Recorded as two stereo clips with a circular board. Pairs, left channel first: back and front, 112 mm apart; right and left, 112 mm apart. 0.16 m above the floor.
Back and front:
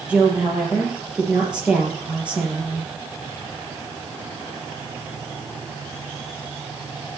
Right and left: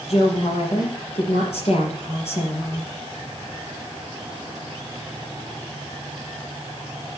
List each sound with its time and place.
0.1 s a woman speaking: 80° right, 3.5 m